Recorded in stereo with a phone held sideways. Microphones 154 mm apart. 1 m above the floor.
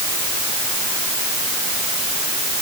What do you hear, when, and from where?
Only background noise.